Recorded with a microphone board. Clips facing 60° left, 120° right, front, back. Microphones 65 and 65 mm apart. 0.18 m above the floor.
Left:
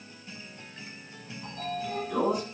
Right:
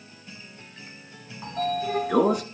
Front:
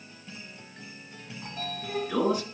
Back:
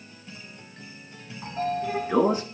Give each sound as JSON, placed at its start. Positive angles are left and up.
{"t": 1.4, "sound": "a sliding door", "azimuth_deg": -120, "distance_m": 1.9}